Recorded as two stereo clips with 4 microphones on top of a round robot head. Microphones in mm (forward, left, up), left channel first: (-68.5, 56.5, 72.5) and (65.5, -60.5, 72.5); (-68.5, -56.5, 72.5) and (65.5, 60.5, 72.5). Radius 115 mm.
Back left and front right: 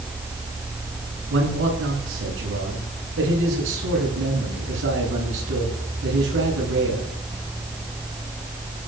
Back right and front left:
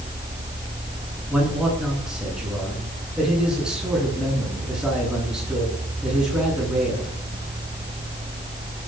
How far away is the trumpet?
No trumpet in this recording.